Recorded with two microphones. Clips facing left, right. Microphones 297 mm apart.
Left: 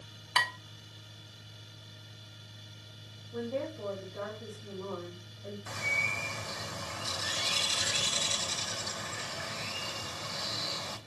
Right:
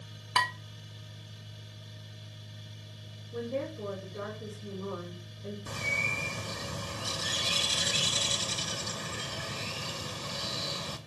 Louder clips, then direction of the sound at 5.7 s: Right 3 dB; 40° right (ahead or behind).